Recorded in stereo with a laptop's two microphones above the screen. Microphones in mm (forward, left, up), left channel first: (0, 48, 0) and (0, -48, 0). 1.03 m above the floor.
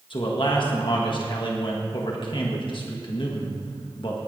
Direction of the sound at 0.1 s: 55° left (ahead or behind).